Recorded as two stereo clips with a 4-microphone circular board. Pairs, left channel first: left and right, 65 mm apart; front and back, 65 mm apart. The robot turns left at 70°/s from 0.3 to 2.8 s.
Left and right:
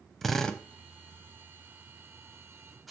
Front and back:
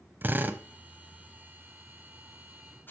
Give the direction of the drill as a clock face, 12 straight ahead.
6 o'clock.